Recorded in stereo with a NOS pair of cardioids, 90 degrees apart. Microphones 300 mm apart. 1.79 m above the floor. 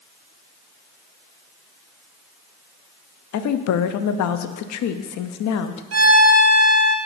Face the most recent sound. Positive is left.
turn(degrees=-60)